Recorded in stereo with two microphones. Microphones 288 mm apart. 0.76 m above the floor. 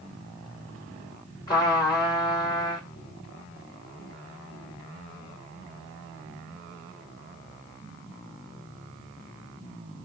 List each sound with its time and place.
1.5 s a trumpet: 15° left (ahead or behind), 1.7 m